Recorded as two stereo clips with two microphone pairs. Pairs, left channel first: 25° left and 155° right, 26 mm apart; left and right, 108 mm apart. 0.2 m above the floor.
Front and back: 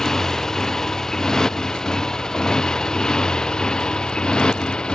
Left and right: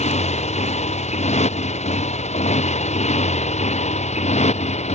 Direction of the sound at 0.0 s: 100° left.